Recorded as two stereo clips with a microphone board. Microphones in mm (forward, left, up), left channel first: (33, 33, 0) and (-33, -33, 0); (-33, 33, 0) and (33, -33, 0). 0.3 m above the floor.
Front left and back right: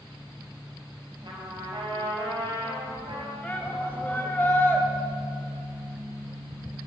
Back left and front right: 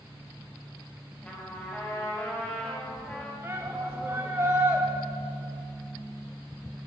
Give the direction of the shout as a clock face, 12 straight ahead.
12 o'clock.